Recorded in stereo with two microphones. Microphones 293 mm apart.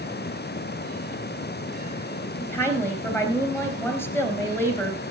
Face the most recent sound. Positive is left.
turn(degrees=10)  # may be behind; listen again after turning